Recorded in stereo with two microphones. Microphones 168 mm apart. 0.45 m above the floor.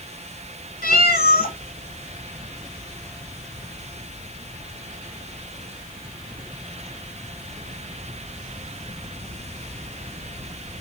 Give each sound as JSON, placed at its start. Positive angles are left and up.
{"t": 0.8, "sound": "a cat meowing", "side_deg": 75, "distance_m": 0.8}